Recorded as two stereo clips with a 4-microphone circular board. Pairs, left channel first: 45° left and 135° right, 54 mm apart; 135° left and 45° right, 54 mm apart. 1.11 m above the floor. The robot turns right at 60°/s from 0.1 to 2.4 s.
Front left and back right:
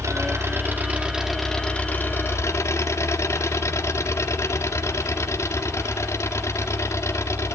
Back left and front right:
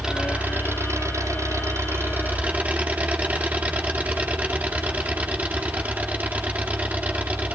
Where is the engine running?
120° right, 2 m; by 7.6 s 15° left, 2 m.